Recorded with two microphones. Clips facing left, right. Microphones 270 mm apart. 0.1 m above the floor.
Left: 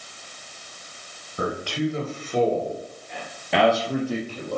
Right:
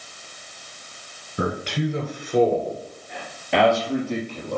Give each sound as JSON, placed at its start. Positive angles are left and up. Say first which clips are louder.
{"t": 1.4, "sound": "a man speaking", "louder": "even", "side_deg": -25, "distance_m": 1.8}